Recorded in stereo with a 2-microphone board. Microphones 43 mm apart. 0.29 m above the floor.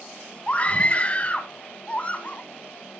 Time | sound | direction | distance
0.5 | a scream | 30° left (ahead or behind) | 2 m